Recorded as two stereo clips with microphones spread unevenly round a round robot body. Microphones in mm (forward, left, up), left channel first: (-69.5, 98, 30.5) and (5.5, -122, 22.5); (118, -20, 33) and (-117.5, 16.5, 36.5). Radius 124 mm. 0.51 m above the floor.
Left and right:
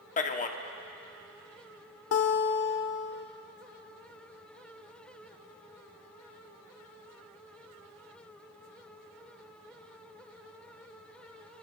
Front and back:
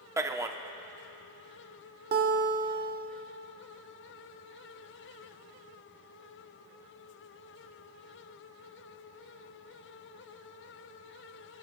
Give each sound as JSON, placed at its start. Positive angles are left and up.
{"t": 0.2, "sound": "a man speaking", "azimuth_deg": 105, "distance_m": 0.7}
{"t": 2.1, "sound": "a guitar", "azimuth_deg": 120, "distance_m": 1.0}